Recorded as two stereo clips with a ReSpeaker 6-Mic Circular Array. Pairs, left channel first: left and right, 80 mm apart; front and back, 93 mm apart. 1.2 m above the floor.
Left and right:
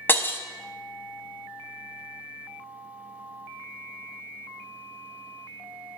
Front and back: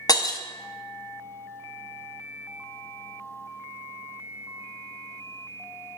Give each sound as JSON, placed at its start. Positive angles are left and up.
{"t": 0.1, "sound": "breaking glass", "azimuth_deg": 30, "distance_m": 0.5}